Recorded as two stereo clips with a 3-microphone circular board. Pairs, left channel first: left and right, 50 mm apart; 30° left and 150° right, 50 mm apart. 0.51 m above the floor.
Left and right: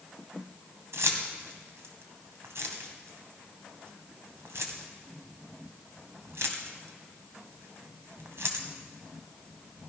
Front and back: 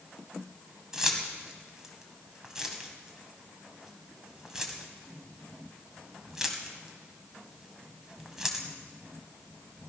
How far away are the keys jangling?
About 1.9 m.